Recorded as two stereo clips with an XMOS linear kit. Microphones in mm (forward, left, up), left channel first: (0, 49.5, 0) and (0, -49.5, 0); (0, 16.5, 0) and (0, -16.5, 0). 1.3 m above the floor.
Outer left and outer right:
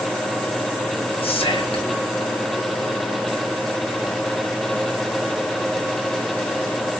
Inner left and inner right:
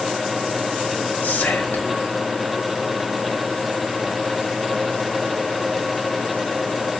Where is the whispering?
75° left (ahead or behind), 1.0 m.